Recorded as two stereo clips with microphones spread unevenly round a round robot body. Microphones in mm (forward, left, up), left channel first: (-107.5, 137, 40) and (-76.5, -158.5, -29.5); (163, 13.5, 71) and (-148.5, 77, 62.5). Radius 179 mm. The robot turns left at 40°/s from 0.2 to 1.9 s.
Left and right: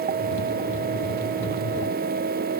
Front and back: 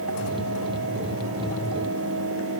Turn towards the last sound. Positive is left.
No sound to turn to.